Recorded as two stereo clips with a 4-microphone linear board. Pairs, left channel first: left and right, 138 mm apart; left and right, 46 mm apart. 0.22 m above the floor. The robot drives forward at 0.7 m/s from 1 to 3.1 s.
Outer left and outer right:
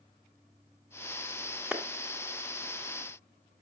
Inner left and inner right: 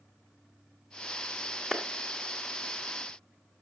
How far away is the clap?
About 1.5 m.